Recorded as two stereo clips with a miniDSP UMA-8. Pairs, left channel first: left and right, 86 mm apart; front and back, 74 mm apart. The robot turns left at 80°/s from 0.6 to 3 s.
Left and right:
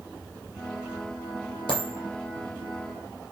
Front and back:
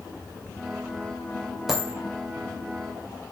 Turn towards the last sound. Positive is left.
turn(degrees=-10)